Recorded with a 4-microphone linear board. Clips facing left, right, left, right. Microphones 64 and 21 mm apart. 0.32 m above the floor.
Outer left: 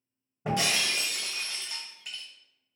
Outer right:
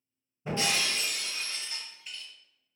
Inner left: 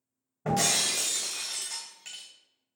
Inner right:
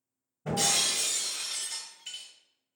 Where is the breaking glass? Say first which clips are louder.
Outer left 2 dB, inner left 1 dB; 80° left, 1.3 m.